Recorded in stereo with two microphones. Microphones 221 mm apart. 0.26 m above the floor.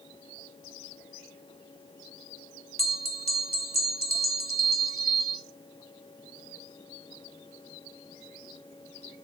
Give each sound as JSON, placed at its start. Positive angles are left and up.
{"t": 2.8, "sound": "a bell", "side_deg": 45, "distance_m": 1.6}